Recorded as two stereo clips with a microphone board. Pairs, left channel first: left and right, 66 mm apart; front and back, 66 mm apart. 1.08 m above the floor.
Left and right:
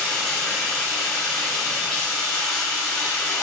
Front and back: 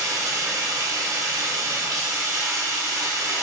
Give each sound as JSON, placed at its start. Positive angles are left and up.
{"t": 0.0, "sound": "running water", "azimuth_deg": 165, "distance_m": 1.6}